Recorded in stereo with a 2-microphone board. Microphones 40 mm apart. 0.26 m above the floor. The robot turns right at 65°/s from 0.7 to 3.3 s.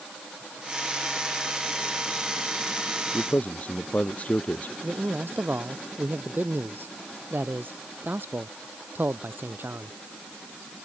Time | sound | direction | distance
3.1 | a man speaking | 50° left (ahead or behind) | ?
4.8 | a man speaking | 65° right (ahead or behind) | ?